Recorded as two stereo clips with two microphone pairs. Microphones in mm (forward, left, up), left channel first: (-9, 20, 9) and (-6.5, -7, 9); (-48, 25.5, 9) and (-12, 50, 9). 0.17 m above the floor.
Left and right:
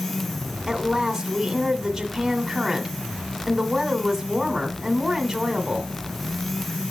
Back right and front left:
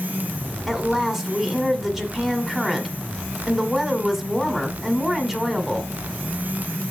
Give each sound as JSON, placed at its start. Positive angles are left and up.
{"t": 0.7, "sound": "a woman speaking", "azimuth_deg": -25, "distance_m": 1.3}